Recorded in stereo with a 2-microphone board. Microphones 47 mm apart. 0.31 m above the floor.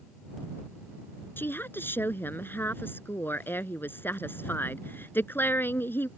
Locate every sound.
1.4 s a woman speaking: 50° left (ahead or behind)